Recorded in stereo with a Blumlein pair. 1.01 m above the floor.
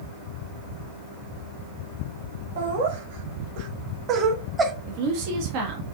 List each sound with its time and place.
2.6 s laughter: 60° right, 1.7 m; by 4.7 s 15° right, 1.0 m
4.9 s a woman speaking: 45° right, 1.1 m